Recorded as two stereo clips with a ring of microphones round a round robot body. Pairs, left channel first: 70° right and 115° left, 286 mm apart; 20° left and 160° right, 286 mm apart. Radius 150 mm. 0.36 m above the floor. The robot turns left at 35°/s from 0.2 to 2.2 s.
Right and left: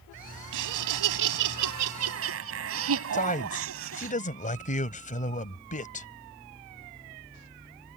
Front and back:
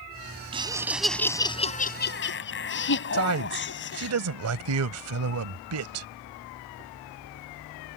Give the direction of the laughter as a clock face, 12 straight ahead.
8 o'clock.